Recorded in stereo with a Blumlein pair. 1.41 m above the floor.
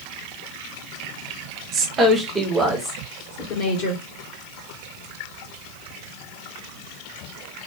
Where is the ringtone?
I don't hear a ringtone.